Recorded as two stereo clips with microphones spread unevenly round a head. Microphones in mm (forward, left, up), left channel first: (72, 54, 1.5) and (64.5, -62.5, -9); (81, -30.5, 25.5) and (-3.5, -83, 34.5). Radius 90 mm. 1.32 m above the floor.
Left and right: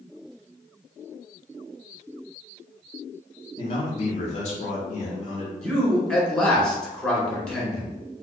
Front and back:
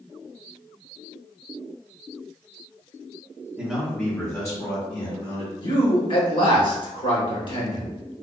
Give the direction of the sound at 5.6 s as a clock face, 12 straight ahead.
12 o'clock.